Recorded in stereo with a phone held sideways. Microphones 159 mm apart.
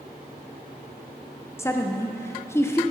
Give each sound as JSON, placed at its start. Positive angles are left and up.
{"t": 1.6, "sound": "a woman speaking", "side_deg": 15, "distance_m": 0.5}